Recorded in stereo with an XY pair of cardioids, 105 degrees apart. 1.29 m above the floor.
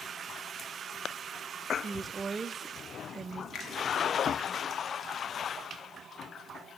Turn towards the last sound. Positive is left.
turn(degrees=65)